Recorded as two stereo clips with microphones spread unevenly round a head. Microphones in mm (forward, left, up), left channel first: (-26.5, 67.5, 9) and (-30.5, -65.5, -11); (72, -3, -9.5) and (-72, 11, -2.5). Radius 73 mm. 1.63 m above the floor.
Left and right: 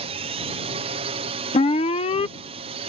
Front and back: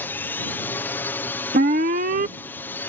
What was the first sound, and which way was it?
A drone, 80° right.